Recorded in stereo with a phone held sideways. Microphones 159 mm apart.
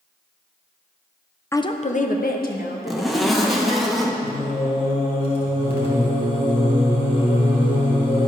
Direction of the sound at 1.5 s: 15° left (ahead or behind).